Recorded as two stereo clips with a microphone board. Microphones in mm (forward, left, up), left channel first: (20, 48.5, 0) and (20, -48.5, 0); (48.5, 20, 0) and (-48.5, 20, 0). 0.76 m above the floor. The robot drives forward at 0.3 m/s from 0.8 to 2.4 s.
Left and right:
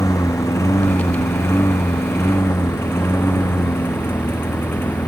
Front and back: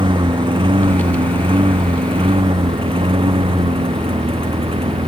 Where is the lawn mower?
150° left; by 5.1 s 160° left.